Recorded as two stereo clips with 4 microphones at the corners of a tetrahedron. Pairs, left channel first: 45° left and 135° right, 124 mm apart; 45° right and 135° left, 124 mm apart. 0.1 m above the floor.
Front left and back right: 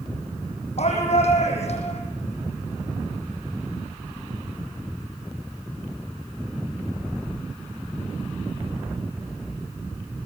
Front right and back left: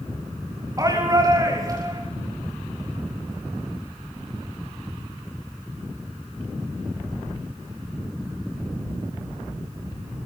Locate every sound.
0.8 s a shout: 75° left, 6.5 m